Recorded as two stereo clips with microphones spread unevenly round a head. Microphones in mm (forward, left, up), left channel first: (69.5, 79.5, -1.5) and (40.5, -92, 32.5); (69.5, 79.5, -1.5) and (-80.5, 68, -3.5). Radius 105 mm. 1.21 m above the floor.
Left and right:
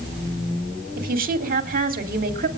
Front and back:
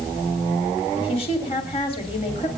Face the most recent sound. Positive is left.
turn(degrees=-60)